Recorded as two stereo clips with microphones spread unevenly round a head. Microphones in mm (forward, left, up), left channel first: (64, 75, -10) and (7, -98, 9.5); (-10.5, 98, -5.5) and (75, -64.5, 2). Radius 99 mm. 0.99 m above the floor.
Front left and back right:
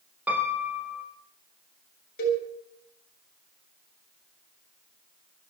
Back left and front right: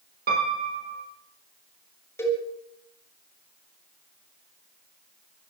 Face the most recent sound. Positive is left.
turn(degrees=40)